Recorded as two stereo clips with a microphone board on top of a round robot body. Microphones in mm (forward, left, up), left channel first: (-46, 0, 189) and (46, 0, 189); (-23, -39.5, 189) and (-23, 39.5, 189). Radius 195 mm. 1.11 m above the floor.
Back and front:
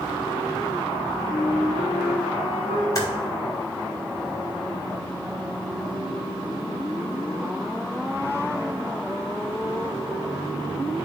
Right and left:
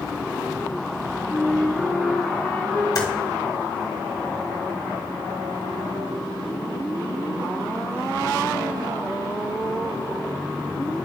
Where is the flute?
165° right, 0.8 m.